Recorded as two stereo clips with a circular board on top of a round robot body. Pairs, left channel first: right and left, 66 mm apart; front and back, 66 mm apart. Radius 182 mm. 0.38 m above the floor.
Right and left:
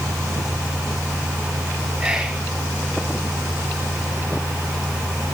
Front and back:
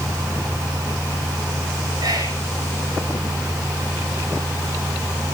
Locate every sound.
2.0 s whispering: 170° left, 8 m